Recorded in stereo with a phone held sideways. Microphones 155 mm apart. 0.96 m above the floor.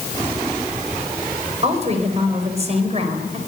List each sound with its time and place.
1.6 s a woman speaking: 40° right (ahead or behind), 5 m